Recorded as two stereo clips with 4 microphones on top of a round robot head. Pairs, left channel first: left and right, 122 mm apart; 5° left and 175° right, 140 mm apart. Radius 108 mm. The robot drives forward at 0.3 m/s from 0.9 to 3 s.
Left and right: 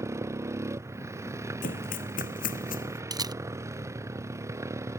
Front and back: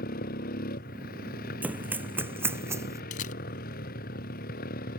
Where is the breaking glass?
I don't hear breaking glass.